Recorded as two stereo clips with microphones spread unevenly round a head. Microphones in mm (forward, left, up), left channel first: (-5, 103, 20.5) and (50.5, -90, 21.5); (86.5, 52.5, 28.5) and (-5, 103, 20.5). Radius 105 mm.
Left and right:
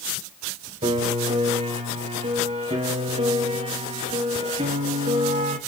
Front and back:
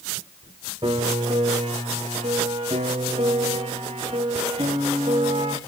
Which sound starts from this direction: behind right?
A piano, at 0.8 s.